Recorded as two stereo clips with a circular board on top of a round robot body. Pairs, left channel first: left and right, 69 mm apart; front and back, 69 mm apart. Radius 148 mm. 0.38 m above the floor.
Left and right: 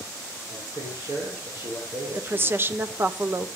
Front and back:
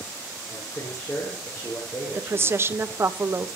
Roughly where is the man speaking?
Ahead right.